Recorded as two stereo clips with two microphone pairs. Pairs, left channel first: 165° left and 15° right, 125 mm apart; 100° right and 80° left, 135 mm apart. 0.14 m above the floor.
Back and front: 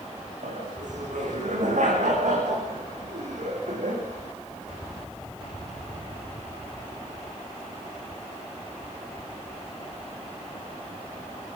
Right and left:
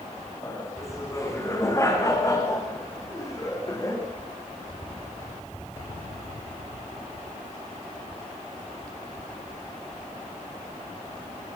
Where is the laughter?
30° right, 9.5 m; by 4.0 s 35° right, 6.5 m.